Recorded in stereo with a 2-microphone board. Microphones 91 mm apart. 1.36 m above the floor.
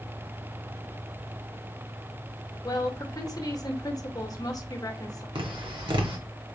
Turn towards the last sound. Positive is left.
turn(degrees=-70)  # may be behind; listen again after turning